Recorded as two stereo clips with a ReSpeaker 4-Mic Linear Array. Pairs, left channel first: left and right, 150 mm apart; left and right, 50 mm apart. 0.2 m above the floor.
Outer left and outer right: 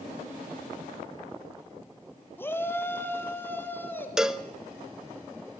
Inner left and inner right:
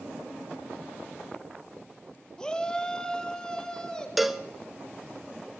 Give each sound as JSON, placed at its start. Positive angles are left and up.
{"t": 2.4, "sound": "a shout", "side_deg": 15, "distance_m": 1.2}
{"t": 4.2, "sound": "a cowbell", "side_deg": -5, "distance_m": 0.7}